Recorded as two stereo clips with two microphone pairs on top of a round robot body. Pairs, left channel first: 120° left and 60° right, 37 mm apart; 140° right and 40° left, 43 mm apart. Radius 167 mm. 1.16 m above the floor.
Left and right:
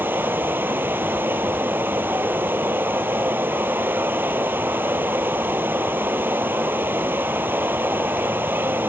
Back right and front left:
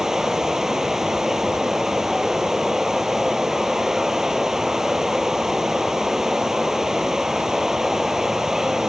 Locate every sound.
0.0 s running water: 40° right